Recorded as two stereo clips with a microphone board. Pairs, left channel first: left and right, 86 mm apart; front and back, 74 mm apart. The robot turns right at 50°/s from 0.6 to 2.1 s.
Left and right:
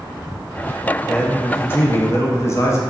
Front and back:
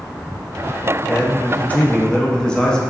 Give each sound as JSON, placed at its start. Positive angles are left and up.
{"t": 1.1, "sound": "a man speaking", "azimuth_deg": 20, "distance_m": 0.6}